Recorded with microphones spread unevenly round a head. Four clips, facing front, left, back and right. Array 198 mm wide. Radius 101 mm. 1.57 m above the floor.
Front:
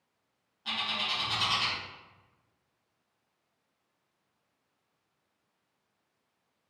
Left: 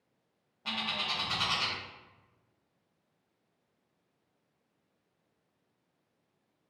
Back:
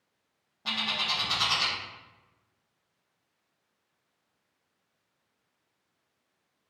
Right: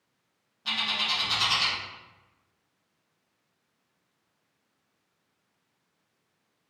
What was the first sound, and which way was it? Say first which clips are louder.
A bird: right 4 dB, back 2 dB; 170° left.